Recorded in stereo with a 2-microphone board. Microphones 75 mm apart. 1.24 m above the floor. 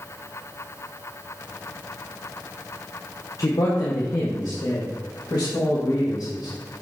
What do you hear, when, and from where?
3.4 s a man speaking: 55° left (ahead or behind), 0.8 m; by 6.5 s 80° left, 2.5 m